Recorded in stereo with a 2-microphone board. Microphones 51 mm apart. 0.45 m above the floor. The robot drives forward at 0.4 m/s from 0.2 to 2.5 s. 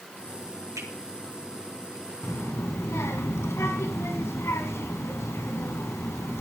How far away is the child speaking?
About 2.5 m.